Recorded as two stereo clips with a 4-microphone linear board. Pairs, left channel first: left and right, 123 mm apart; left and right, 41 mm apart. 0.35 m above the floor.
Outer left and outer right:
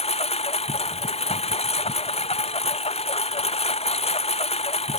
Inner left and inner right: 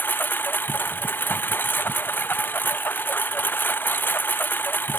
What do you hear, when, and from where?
0.0 s a lawn mower: 60° left (ahead or behind)